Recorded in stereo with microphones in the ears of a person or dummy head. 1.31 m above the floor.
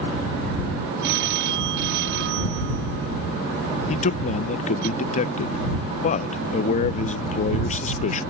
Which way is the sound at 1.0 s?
65° right (ahead or behind).